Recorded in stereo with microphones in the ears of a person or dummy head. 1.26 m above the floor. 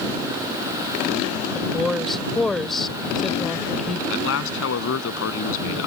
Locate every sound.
1.6 s a woman speaking: centre (ahead or behind)
4.1 s a man speaking: 75° left (ahead or behind)